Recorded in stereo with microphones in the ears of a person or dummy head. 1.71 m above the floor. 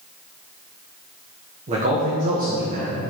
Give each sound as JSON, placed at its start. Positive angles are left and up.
{"t": 1.7, "sound": "a man speaking", "side_deg": -30, "distance_m": 1.1}